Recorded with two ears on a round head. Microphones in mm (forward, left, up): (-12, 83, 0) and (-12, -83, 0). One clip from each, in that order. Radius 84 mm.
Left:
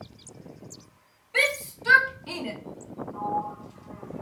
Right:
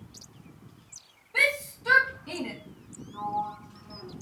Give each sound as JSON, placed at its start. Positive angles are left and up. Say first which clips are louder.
{"t": 1.3, "sound": "a shout", "louder": "even", "side_deg": 70, "distance_m": 1.9}
{"t": 3.1, "sound": "a sliding door", "louder": "left 1 dB", "side_deg": 20, "distance_m": 1.3}